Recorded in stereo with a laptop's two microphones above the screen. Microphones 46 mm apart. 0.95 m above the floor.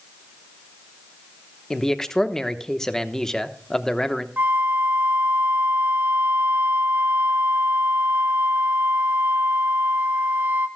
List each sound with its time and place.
1.7 s a man speaking: 10° left (ahead or behind), 0.9 m
4.4 s a flute: 40° right (ahead or behind), 1.1 m